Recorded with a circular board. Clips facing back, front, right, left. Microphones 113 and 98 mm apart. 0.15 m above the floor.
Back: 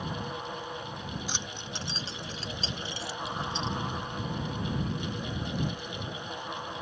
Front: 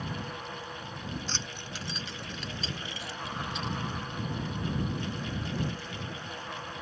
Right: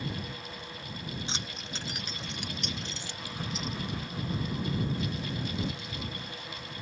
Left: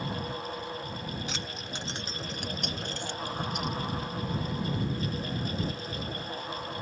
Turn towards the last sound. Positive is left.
turn(degrees=120)